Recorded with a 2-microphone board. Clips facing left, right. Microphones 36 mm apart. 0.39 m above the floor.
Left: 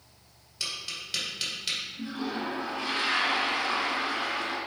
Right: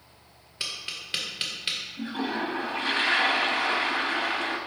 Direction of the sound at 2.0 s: 45° right (ahead or behind).